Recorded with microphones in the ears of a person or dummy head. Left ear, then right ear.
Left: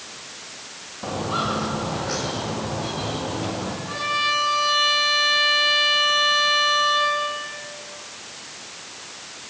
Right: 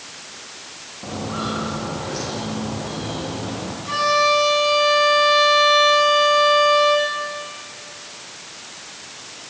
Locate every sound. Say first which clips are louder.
1.0 s footsteps: left 3 dB; 70° left (ahead or behind), 6.5 m; by 3.7 s 80° left, 9.5 m
3.8 s a violin: right 6 dB; 80° right, 10 m